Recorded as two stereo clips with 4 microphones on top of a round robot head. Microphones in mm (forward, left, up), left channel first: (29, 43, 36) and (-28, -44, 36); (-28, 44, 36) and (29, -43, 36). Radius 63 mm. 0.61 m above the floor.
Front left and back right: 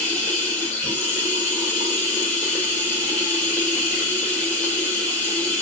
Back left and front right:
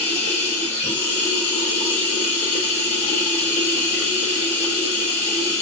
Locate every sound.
0.0 s running water: 130° left, 1.6 m